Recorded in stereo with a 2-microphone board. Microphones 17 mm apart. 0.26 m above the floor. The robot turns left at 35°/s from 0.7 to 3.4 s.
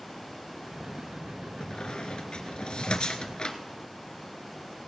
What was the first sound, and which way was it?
A squeak, 55° left (ahead or behind).